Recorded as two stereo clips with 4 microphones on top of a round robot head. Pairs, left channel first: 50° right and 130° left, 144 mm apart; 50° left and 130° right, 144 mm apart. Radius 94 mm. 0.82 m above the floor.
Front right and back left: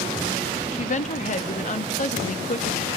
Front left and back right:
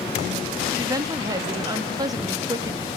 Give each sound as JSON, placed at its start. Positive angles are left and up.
{"t": 0.7, "sound": "a woman speaking", "azimuth_deg": -70, "distance_m": 1.6}